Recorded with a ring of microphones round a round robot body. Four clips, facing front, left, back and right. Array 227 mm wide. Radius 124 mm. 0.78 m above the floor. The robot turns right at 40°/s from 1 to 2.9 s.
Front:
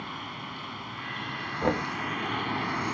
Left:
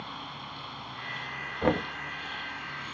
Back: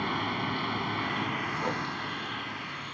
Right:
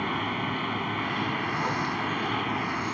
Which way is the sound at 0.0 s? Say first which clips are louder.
Right 12 dB, back 7 dB; 120° right.